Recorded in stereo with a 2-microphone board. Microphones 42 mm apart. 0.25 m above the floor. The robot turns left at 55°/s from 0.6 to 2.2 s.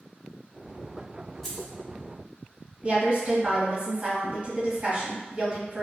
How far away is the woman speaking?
About 1.4 m.